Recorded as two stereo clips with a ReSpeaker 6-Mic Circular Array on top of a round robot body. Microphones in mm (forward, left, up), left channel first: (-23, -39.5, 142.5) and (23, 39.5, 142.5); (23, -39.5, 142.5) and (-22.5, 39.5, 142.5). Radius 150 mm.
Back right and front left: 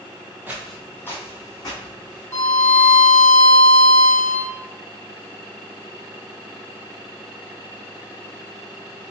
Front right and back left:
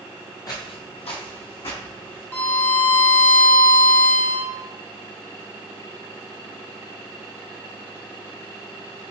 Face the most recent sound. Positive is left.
turn(degrees=-110)